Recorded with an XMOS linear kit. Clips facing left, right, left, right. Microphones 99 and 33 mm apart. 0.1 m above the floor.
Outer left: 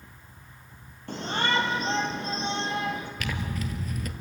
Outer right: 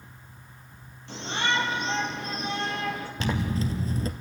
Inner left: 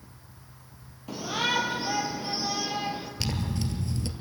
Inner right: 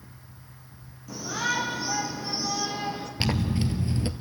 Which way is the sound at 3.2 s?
30° right (ahead or behind).